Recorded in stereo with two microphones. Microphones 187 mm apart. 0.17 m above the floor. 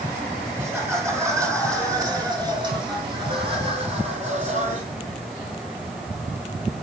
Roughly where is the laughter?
Centre.